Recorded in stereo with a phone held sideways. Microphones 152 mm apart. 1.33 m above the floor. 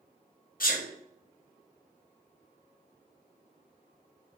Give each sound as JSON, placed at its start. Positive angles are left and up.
{"t": 0.6, "sound": "a sneeze", "side_deg": 65, "distance_m": 0.7}